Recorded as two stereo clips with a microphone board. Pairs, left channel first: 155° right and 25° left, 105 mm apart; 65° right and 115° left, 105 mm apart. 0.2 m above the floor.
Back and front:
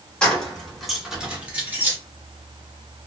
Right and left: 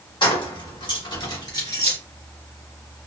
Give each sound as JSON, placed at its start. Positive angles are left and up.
{"t": 0.2, "sound": "keys jangling", "azimuth_deg": -80, "distance_m": 1.5}